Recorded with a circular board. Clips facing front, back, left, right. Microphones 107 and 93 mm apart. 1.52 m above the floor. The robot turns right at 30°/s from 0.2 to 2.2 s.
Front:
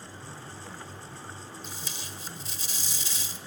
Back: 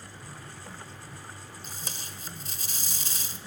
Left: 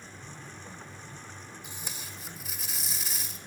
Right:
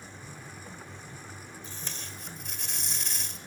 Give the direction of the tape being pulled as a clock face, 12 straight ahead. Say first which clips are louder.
Front 1 dB, right 1 dB; 7 o'clock.